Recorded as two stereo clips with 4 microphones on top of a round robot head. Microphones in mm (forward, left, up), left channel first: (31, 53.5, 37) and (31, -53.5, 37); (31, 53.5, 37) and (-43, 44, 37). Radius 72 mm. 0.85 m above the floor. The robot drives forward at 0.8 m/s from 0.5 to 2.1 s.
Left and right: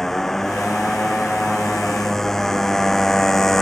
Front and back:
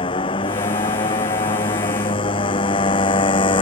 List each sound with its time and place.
0.0 s a motorcycle: 5° left